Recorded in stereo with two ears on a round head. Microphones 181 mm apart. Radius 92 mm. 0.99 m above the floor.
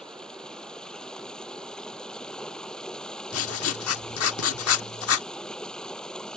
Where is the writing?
70° left (ahead or behind).